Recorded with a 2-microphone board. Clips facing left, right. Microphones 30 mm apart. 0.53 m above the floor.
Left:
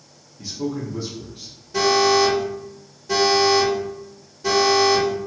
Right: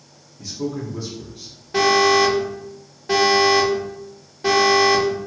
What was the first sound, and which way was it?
A man speaking, 10° left (ahead or behind).